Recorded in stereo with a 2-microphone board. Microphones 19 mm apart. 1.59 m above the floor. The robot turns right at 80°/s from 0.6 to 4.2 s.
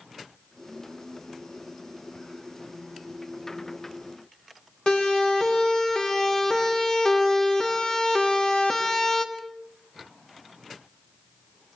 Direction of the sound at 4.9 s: 50° left (ahead or behind).